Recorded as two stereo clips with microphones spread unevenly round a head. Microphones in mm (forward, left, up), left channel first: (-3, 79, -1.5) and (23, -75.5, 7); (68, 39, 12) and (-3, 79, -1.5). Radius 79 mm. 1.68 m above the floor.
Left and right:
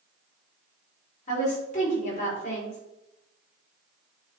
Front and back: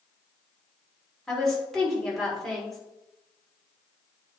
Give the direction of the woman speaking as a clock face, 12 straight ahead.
10 o'clock.